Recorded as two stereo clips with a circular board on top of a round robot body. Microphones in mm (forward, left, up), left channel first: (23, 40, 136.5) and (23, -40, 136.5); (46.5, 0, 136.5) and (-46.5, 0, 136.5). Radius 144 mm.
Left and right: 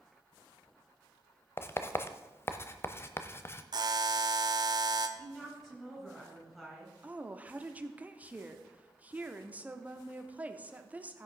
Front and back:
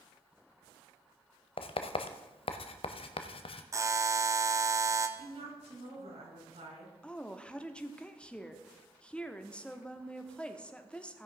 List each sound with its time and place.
1.6 s writing: 30° left, 0.6 m
3.7 s a buzzer: 125° right, 0.9 m
5.2 s a woman speaking: 175° left, 5 m
7.0 s a woman speaking: 60° right, 1.1 m